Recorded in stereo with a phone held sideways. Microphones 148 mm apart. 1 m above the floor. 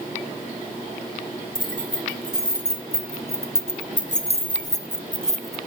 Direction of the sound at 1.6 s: 65° left (ahead or behind).